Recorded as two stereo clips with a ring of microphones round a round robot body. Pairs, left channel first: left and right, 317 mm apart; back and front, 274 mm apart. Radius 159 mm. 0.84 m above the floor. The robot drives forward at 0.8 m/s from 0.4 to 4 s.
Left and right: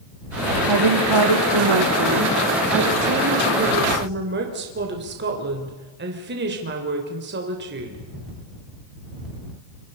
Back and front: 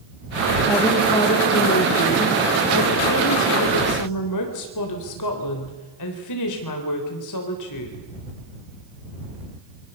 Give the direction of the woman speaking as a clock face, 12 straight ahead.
3 o'clock.